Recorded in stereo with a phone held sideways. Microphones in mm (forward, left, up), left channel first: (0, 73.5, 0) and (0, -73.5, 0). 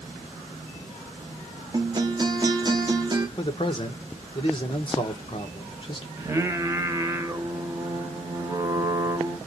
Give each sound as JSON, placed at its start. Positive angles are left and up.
{"t": 1.7, "sound": "a guitar", "side_deg": -30, "distance_m": 0.8}
{"t": 3.4, "sound": "a man speaking", "side_deg": 35, "distance_m": 1.0}
{"t": 6.2, "sound": "singing", "side_deg": -20, "distance_m": 0.9}